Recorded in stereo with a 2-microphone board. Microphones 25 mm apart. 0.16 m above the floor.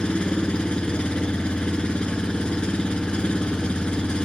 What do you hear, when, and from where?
0.0 s an engine running: 45° left (ahead or behind), 0.7 m